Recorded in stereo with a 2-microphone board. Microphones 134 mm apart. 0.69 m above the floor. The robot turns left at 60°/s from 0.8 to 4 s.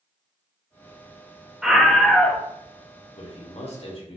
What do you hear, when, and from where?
1.6 s a scream: 5° right (ahead or behind), 0.5 m; by 2.4 s 10° left (ahead or behind), 0.5 m
3.2 s a man speaking: 110° left, 1.0 m; by 4.2 s 60° left, 1.0 m